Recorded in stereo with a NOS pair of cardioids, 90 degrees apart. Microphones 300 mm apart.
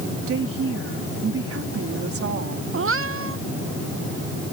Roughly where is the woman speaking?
Ahead right.